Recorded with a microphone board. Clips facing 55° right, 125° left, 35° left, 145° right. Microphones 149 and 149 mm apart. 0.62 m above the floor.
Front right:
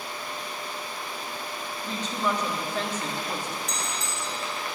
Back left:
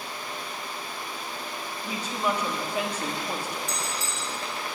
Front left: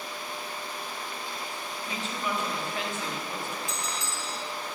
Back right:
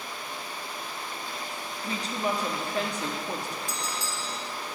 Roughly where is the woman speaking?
Behind.